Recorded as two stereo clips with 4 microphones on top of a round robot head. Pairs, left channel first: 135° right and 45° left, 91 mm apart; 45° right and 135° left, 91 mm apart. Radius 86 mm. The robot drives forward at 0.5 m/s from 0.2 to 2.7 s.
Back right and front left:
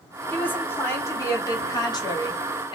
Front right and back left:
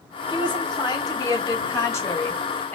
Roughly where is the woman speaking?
Ahead right.